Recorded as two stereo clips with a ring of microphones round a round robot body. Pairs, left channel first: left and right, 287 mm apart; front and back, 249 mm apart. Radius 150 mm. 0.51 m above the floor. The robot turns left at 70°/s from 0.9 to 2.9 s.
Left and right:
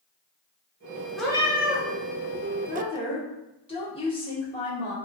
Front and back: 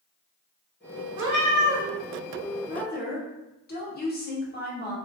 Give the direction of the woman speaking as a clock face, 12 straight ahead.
11 o'clock.